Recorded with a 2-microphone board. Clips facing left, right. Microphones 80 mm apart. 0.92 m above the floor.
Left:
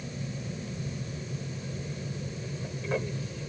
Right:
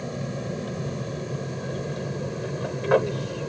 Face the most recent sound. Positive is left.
turn(degrees=-70)  # may be behind; listen again after turning